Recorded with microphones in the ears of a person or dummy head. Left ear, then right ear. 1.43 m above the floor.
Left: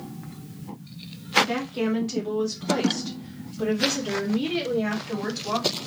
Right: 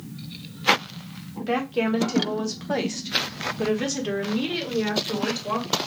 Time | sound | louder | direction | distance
1.4 | a woman speaking | right 1 dB | 40° right (ahead or behind) | 1.0 m